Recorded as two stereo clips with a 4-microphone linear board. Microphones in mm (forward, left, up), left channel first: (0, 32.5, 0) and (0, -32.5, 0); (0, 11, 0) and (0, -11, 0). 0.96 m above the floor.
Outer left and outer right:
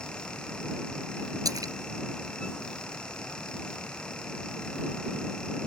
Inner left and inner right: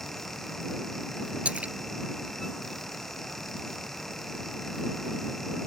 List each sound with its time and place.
1.4 s a splash: 70° right (ahead or behind)